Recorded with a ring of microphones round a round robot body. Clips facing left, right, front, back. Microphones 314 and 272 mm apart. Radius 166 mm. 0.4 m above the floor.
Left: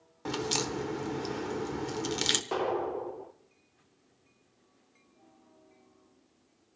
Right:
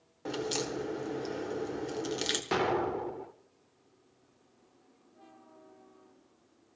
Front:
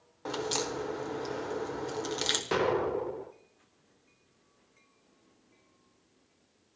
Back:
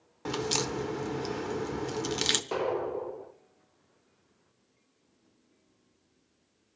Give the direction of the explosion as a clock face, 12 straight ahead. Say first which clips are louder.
Right 1 dB, front 3 dB; 2 o'clock.